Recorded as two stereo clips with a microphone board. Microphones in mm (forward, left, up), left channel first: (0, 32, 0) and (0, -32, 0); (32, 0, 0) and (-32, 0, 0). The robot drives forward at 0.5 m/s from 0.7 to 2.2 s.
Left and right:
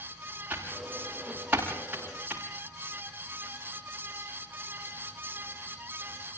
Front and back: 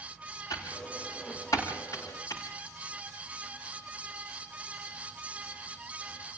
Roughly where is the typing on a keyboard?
Ahead right.